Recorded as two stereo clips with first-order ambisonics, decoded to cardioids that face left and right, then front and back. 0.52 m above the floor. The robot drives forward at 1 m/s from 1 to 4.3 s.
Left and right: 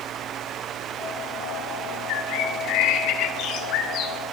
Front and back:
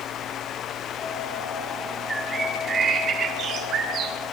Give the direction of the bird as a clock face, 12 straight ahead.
9 o'clock.